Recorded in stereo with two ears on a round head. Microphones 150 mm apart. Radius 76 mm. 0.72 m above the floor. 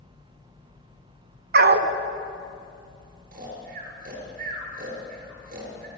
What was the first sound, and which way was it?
A dog barking, 65° right (ahead or behind).